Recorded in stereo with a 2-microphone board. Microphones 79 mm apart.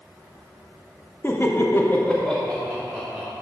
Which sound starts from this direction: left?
Laughter, at 1.2 s.